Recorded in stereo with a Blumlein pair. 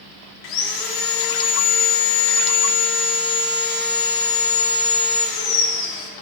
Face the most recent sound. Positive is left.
turn(degrees=45)